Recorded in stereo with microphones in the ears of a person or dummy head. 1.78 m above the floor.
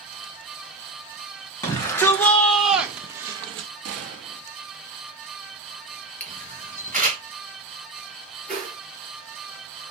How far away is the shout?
About 1.3 m.